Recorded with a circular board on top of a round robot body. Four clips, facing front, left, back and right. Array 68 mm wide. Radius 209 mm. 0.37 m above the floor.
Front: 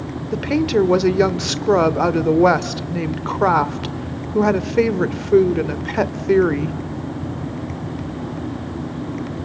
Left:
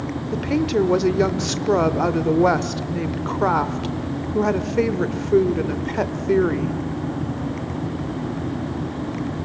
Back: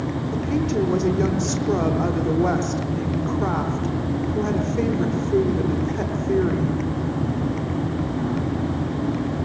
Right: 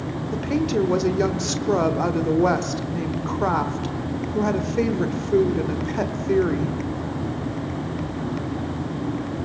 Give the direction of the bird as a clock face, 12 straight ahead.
I don't hear a bird.